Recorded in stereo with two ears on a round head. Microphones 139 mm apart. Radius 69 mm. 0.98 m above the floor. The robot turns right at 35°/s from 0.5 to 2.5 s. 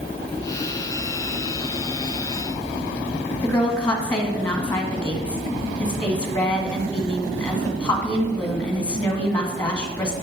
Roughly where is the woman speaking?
Centre.